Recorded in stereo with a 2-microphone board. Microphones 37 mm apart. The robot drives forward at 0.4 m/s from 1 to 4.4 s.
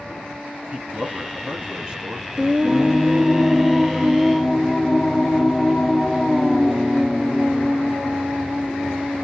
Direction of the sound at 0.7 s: 25° right (ahead or behind).